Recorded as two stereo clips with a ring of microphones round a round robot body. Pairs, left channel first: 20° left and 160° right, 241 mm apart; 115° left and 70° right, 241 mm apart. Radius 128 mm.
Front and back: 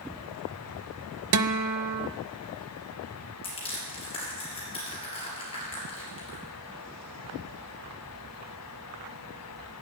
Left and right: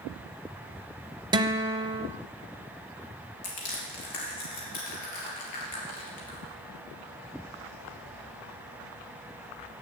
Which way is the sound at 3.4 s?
95° left.